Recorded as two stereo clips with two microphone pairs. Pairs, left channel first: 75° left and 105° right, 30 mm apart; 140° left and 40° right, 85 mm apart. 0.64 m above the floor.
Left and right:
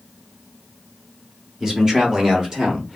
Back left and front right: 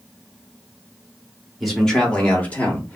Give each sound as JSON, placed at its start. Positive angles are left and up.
{"t": 1.6, "sound": "a man speaking", "azimuth_deg": -125, "distance_m": 1.2}